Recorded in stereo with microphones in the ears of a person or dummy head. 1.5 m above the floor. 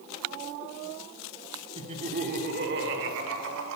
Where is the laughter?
30° right (ahead or behind), 1.0 m; by 3.8 s 80° right, 1.6 m.